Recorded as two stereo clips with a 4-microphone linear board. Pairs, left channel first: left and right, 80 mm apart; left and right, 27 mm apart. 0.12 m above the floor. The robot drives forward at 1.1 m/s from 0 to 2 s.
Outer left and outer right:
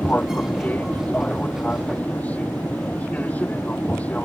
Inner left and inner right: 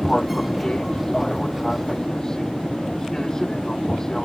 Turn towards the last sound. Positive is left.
turn(degrees=20)  # may be behind; listen again after turning